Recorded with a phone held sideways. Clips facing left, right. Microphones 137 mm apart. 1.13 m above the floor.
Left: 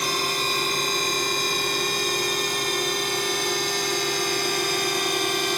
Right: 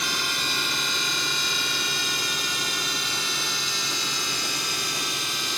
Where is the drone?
45° left (ahead or behind); by 5.6 s 60° left (ahead or behind).